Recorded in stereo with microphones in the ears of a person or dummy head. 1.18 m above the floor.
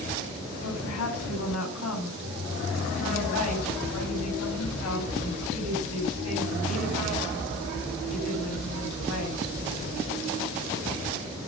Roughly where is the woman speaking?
Left.